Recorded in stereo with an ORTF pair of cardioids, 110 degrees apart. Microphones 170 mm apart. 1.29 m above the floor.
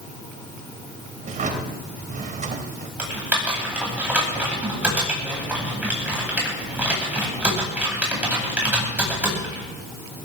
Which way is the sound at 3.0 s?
5° right.